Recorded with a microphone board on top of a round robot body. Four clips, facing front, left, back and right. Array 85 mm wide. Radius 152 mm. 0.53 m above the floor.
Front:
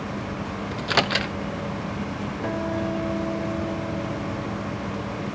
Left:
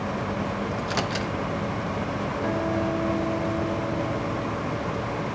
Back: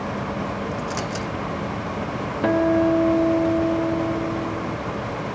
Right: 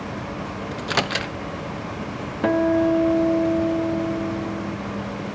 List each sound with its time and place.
0.7 s a microwave: 35° right, 0.6 m
2.4 s a guitar: 130° right, 0.6 m